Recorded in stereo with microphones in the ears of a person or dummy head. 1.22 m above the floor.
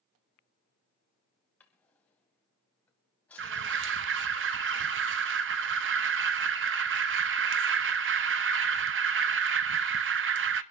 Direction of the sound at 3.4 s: 60° right (ahead or behind).